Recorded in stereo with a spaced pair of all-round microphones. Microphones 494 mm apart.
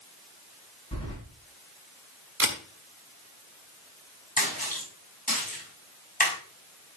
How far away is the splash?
About 6.5 m.